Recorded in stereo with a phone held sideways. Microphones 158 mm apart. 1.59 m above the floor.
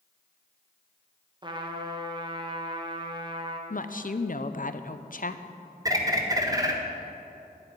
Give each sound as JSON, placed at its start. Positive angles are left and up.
{"t": 1.4, "sound": "a trumpet", "side_deg": -30, "distance_m": 1.2}
{"t": 3.7, "sound": "a woman speaking", "side_deg": 60, "distance_m": 0.6}
{"t": 5.8, "sound": "a bird", "side_deg": -20, "distance_m": 1.2}